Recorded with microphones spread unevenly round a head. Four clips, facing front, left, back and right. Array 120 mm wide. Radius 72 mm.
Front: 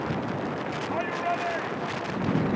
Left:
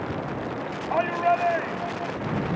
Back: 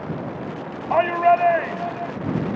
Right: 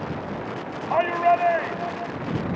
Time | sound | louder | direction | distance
0.9 | a shout | right 3 dB, back 14 dB | 165° right | ?